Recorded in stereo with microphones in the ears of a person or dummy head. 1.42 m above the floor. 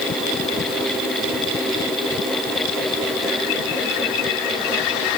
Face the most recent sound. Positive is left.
No sound to turn to.